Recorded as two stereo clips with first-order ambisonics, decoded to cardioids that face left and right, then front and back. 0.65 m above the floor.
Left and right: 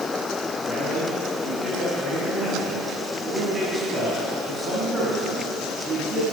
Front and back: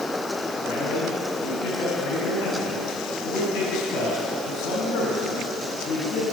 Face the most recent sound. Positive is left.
turn(degrees=-15)